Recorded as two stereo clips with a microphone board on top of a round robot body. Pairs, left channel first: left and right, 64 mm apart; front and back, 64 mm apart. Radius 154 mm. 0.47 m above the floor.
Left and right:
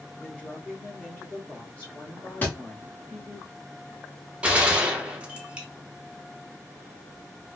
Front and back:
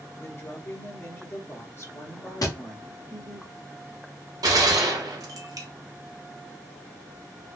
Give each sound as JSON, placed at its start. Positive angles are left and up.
{"t": 0.2, "sound": "a woman speaking", "azimuth_deg": 40, "distance_m": 1.7}
{"t": 2.4, "sound": "a thud", "azimuth_deg": 30, "distance_m": 0.7}
{"t": 4.4, "sound": "a gunshot", "azimuth_deg": -160, "distance_m": 0.8}